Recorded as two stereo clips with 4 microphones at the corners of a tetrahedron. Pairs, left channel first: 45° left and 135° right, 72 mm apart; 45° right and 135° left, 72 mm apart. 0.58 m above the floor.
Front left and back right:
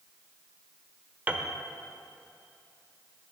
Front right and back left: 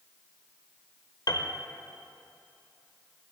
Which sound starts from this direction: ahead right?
A piano, at 1.3 s.